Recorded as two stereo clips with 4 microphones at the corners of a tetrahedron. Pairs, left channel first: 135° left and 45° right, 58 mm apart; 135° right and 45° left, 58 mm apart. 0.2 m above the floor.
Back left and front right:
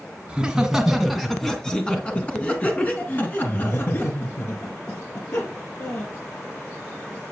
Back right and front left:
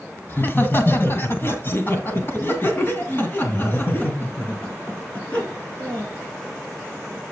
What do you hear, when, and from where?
0.3 s laughter: 110° right, 1.8 m; by 6.1 s 165° left, 4 m